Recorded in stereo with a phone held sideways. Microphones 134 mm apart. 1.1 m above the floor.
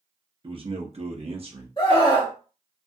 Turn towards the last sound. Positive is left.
turn(degrees=35)  # may be behind; listen again after turning